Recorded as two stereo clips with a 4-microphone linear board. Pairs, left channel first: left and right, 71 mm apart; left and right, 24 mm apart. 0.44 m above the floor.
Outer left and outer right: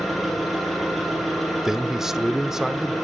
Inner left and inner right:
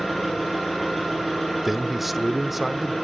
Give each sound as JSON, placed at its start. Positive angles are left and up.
{"t": 0.0, "sound": "an engine running", "side_deg": 0, "distance_m": 7.5}
{"t": 1.6, "sound": "a man speaking", "side_deg": -5, "distance_m": 0.9}